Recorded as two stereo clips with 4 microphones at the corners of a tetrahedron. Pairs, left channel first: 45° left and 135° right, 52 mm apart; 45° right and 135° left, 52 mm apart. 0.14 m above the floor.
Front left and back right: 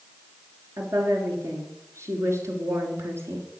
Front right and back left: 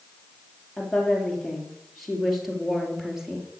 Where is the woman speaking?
130° right, 3.5 m; by 3.5 s 145° right, 2.5 m.